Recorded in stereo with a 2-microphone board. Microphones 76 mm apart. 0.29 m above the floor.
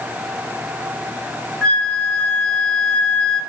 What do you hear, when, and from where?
1.6 s a flute: 10° left (ahead or behind), 2.5 m